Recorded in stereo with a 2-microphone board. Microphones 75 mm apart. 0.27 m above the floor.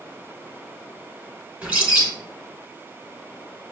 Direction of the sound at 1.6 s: 20° right (ahead or behind).